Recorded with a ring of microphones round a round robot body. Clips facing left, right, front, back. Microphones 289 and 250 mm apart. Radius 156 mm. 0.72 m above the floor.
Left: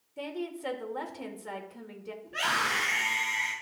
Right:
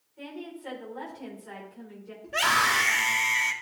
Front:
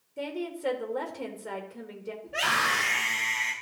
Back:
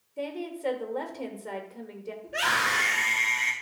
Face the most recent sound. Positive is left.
turn(degrees=-105)